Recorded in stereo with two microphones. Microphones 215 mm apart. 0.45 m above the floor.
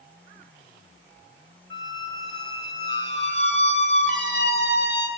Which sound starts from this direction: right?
A squeak, at 1.7 s.